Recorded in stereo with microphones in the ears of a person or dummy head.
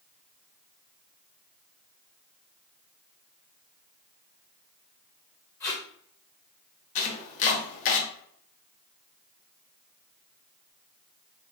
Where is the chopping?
40° left (ahead or behind), 0.8 m.